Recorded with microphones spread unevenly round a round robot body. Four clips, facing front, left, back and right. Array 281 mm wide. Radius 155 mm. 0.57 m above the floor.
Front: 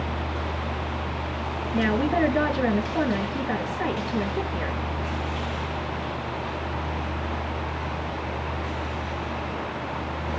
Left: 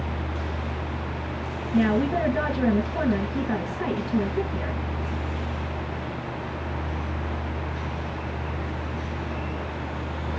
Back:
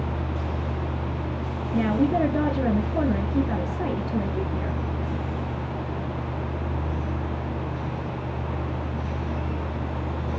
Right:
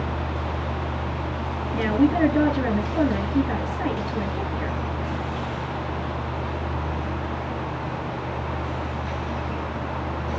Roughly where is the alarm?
No alarm in this recording.